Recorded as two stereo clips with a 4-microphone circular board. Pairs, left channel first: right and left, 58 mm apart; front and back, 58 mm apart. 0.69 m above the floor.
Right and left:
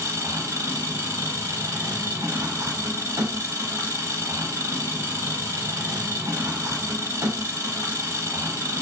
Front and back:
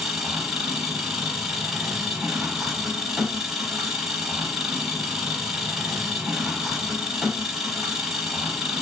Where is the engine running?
95° left, 1.1 m.